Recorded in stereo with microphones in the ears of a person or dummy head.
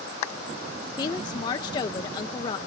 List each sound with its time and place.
1.0 s a woman speaking: 25° left (ahead or behind), 0.5 m